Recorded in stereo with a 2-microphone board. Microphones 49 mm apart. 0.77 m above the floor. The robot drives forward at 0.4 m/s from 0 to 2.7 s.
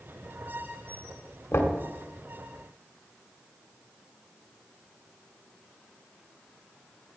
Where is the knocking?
60° left (ahead or behind), 1.9 m.